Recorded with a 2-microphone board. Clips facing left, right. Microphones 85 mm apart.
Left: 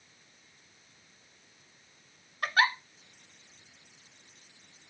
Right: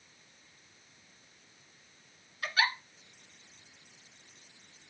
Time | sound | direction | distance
2.4 | a giggle | 50° left (ahead or behind) | 0.7 m